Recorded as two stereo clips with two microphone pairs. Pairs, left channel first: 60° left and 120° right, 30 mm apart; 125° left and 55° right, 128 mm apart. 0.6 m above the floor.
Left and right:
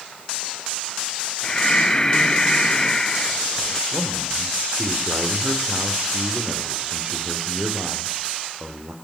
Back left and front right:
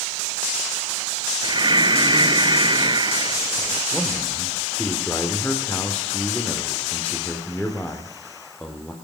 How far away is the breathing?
About 0.6 m.